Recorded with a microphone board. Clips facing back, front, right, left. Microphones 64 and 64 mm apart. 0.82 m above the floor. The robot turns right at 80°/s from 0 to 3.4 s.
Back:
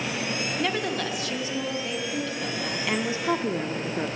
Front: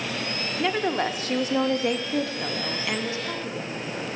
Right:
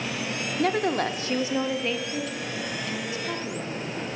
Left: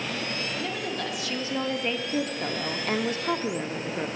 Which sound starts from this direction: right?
A woman speaking, at 0.6 s.